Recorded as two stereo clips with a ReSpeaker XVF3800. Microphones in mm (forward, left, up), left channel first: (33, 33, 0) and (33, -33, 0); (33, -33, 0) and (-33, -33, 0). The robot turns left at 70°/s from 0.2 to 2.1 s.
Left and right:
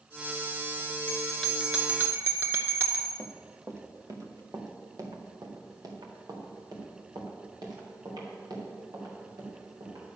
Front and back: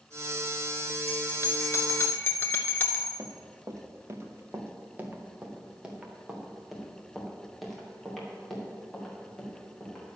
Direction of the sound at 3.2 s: 150° right.